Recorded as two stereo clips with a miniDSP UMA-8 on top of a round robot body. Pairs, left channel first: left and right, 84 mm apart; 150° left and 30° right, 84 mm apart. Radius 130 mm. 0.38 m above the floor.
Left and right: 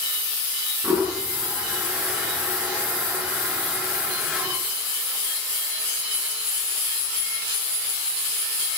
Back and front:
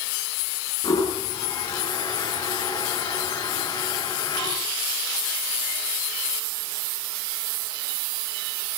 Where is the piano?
No piano in this recording.